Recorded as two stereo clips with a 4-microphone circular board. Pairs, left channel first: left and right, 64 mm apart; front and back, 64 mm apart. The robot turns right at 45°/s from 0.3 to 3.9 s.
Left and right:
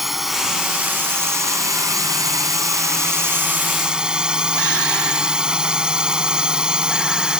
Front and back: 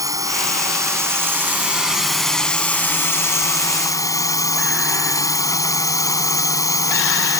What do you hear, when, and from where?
0.0 s a drone: 175° right; by 7.4 s 15° right